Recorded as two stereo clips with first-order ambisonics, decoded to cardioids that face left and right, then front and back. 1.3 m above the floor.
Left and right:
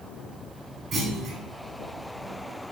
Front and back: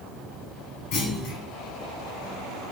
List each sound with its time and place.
0.9 s a clunk: 25° right, 3 m